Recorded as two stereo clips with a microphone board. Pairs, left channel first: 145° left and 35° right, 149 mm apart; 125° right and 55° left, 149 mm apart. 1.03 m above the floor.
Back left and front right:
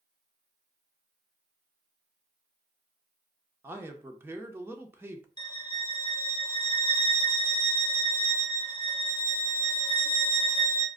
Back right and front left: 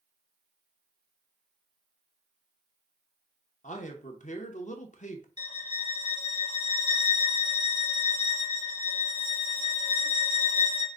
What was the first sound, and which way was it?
A man speaking, 105° right.